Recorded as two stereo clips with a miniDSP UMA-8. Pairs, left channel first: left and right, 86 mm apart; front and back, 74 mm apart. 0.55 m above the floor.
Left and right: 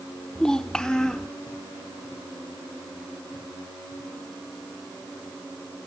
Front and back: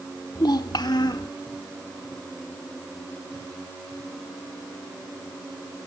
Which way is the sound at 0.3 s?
10° left.